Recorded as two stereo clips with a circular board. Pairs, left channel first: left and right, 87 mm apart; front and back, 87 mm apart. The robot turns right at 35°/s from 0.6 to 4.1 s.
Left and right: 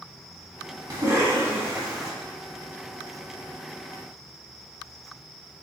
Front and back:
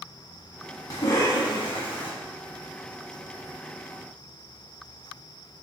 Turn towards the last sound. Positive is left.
turn(degrees=65)